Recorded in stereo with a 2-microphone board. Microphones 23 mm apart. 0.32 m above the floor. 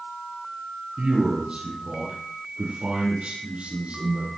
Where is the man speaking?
70° right (ahead or behind), 6 m; by 4.3 s 80° right, 8.5 m.